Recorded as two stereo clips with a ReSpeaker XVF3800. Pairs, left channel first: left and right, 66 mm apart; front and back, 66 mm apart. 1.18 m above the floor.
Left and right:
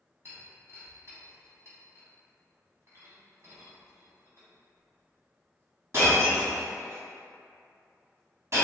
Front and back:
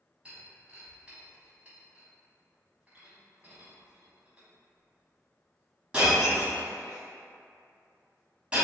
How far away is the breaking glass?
About 1.5 m.